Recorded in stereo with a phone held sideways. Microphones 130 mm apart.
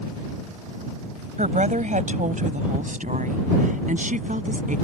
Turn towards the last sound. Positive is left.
turn(degrees=-85)